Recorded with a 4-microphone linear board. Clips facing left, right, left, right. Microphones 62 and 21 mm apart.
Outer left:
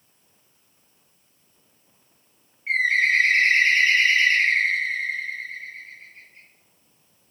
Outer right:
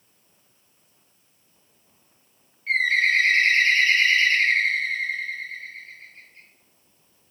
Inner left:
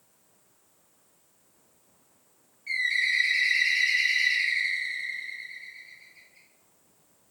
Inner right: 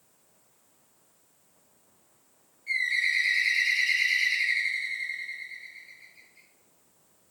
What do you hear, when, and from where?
2.7 s a bird: 20° left (ahead or behind), 0.8 m